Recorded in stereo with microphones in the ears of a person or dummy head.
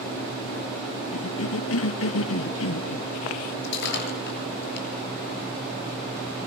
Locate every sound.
1.1 s a cough: 80° left, 1.5 m
3.6 s breaking glass: 70° left (ahead or behind), 8.5 m